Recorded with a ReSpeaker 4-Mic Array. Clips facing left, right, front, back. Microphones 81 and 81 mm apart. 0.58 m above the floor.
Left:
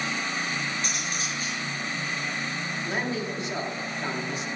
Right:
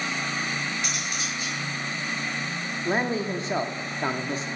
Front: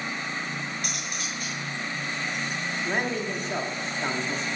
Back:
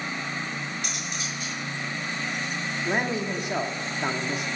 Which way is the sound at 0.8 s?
40° left.